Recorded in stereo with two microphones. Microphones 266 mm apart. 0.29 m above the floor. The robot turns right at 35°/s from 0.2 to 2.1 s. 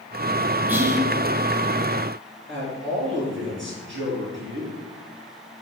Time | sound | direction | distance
0.7 | whispering | 5° right (ahead or behind) | 1.1 m
2.5 | a man speaking | 45° right (ahead or behind) | 4.5 m